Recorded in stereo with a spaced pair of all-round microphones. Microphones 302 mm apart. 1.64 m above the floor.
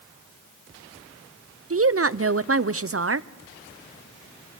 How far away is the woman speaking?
About 0.5 m.